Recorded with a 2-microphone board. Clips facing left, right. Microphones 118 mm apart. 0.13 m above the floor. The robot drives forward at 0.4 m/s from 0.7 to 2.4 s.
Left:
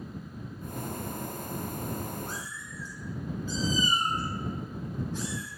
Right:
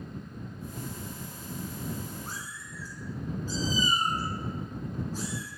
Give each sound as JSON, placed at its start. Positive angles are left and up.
{"t": 2.3, "sound": "a cat meowing", "side_deg": -40, "distance_m": 2.0}